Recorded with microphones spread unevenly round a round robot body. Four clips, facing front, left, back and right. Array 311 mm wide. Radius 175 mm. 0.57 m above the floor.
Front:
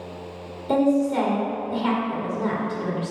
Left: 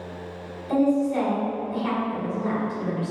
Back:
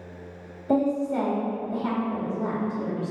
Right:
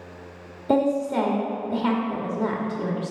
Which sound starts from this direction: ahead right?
A woman speaking, at 0.7 s.